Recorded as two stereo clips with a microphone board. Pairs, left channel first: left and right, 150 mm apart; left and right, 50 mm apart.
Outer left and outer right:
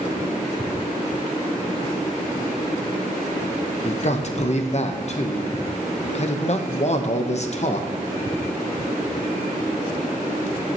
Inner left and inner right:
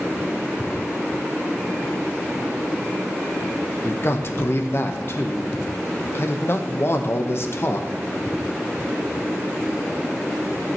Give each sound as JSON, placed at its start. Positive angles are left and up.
{"t": 3.8, "sound": "a man speaking", "side_deg": 50, "distance_m": 0.7}